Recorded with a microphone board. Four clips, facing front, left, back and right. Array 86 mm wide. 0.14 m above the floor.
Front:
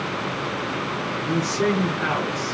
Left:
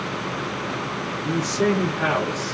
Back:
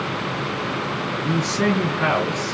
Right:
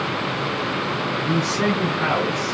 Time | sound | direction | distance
1.2 | a man speaking | 155° right | 2.5 m